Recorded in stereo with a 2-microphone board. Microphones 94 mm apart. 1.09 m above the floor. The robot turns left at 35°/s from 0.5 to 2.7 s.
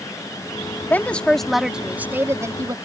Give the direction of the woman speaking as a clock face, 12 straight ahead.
11 o'clock.